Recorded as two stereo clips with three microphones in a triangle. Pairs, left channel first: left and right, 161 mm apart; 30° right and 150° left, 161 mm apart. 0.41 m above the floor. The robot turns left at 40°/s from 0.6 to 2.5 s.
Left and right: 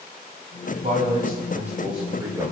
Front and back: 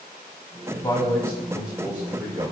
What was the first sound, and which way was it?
A man speaking, 85° right.